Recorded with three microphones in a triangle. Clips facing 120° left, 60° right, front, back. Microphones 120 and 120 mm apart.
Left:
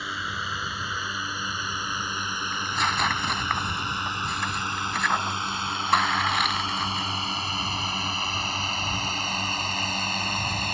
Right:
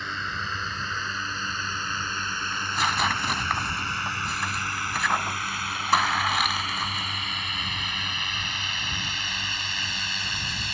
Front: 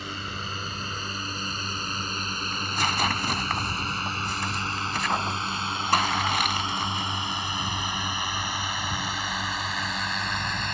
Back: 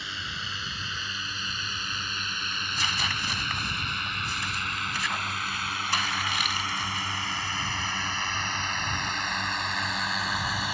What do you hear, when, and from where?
0.0 s a drone: 40° left; by 10.7 s 95° left
2.5 s tearing paper: 30° left